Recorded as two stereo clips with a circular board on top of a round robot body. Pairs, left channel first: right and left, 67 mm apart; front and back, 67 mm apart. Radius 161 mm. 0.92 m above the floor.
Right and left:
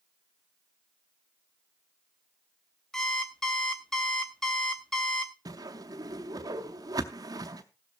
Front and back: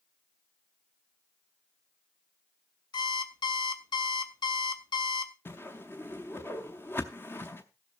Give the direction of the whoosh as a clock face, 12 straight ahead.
10 o'clock.